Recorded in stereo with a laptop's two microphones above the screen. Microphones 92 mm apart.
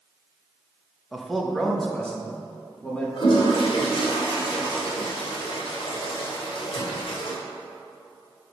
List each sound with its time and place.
1.1 s a man speaking: centre (ahead or behind), 0.9 m; by 3.1 s 15° left (ahead or behind), 2 m
3.2 s a toilet flushing: 75° left (ahead or behind), 2.5 m